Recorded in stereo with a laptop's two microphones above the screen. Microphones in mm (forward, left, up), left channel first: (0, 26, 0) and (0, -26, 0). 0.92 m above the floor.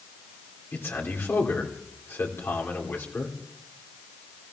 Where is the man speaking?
50° left (ahead or behind), 3 m.